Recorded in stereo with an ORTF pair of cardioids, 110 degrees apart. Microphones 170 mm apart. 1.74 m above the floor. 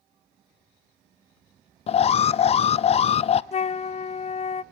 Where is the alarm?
35° left, 0.6 m.